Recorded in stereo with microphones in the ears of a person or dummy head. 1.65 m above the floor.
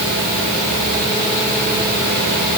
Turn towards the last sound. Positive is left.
No sound to turn to.